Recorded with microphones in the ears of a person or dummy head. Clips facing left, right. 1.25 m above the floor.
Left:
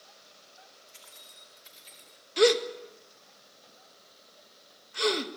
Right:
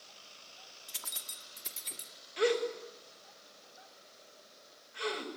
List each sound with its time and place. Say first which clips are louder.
0.9 s keys jangling: right 2 dB; 85° right, 2.0 m; by 2.1 s 50° right (ahead or behind), 3 m
2.4 s a gasp: left 7 dB; 55° left (ahead or behind), 1.8 m